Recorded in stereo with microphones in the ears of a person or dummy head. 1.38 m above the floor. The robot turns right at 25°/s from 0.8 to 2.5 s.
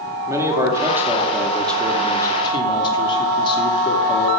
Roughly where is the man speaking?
Ahead.